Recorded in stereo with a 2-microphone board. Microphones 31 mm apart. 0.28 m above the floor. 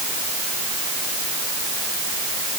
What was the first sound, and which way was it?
Only background noise.